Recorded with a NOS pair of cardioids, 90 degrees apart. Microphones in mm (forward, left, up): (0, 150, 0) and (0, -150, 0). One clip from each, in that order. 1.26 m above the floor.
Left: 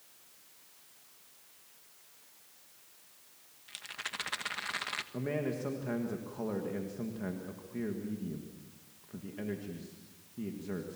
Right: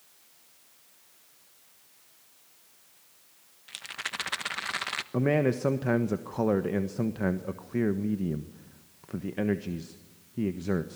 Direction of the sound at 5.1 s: 65° right.